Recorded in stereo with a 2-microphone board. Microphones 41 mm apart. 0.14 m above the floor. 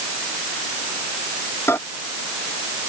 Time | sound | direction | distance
1.7 | a microwave | 75° left (ahead or behind) | ?